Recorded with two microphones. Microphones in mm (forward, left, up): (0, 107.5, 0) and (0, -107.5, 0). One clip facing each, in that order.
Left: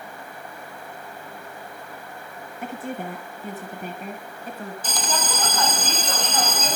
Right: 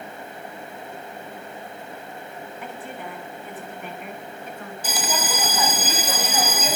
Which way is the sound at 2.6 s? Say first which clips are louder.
Left 7 dB; 45° left (ahead or behind).